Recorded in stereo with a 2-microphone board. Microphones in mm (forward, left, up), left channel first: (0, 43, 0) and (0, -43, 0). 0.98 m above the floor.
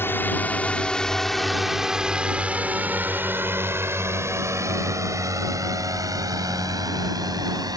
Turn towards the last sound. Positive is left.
turn(degrees=-50)  # may be behind; listen again after turning